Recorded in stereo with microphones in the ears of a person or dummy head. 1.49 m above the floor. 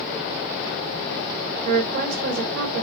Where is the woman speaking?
60° right (ahead or behind), 1.2 m.